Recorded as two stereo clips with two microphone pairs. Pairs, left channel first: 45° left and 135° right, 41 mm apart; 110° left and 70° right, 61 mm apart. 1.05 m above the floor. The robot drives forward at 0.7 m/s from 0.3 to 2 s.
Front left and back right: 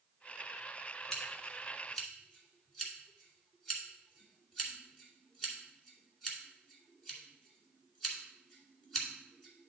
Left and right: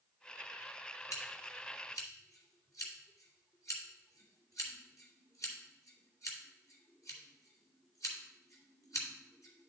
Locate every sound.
1.1 s scissors: 125° left, 1.8 m; by 9.7 s 140° left, 2 m